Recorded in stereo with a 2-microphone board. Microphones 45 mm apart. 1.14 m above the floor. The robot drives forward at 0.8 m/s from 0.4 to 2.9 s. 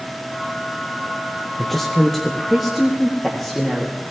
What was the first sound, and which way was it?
A woman speaking, 5° left (ahead or behind).